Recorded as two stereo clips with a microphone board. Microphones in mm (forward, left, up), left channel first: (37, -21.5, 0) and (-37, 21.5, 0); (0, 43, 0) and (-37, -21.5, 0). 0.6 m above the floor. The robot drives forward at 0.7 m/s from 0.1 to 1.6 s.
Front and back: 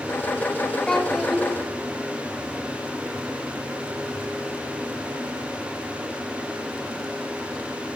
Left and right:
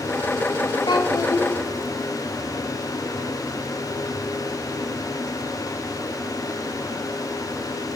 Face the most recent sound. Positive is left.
turn(degrees=70)